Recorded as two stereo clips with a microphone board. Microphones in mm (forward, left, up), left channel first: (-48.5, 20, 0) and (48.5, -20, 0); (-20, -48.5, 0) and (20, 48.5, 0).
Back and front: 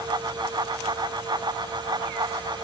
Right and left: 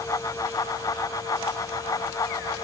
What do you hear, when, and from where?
Only background noise.